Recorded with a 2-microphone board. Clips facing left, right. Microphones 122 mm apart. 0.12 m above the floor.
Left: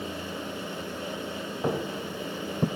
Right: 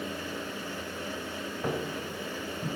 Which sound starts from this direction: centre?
Footsteps, at 1.6 s.